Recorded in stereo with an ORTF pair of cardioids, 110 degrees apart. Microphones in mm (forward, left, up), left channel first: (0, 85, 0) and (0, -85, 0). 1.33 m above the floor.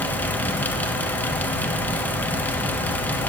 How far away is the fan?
About 2 m.